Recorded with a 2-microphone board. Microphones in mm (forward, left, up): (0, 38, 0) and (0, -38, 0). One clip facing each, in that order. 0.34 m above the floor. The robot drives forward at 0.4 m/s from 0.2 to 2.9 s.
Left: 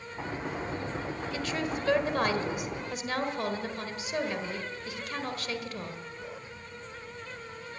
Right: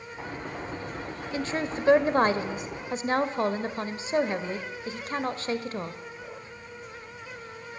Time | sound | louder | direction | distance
1.3 | a woman speaking | right 4 dB | 30° right (ahead or behind) | 1.5 m